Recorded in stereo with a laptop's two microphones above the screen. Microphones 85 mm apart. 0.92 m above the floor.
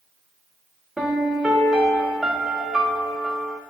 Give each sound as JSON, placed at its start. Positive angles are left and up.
{"t": 1.0, "sound": "a piano", "side_deg": -5, "distance_m": 0.5}